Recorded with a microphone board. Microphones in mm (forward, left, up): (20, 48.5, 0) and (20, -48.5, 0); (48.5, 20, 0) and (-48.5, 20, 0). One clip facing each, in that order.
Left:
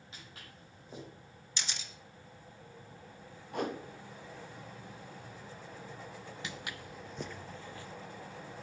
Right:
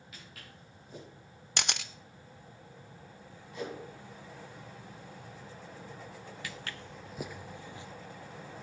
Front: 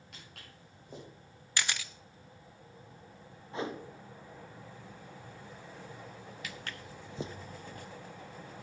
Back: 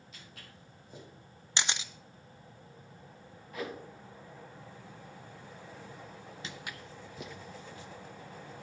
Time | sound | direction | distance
0.1 | footsteps | 25° left | 6.5 m
1.6 | a camera shutter | 115° right | 0.5 m
3.5 | a whoosh | 60° left | 0.8 m
6.4 | footsteps | 140° left | 0.6 m